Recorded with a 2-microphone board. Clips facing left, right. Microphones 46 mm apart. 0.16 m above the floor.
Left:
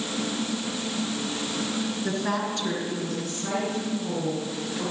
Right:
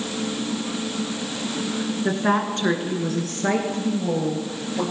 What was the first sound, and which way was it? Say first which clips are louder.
A woman speaking: right 8 dB; 25° right (ahead or behind).